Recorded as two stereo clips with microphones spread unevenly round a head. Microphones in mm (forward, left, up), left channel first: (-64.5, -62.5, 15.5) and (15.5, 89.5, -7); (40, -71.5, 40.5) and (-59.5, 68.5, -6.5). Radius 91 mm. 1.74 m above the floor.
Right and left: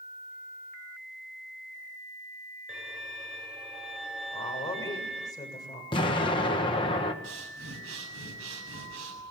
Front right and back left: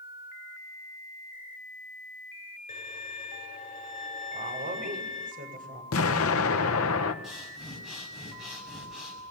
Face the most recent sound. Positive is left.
turn(degrees=35)